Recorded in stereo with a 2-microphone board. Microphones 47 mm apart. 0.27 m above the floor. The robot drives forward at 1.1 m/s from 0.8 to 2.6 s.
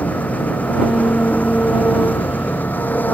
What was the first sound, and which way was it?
An engine running, 30° left (ahead or behind).